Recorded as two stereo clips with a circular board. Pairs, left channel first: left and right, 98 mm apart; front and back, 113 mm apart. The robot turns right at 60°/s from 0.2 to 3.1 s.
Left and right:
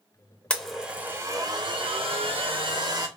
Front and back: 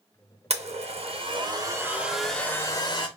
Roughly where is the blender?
Behind.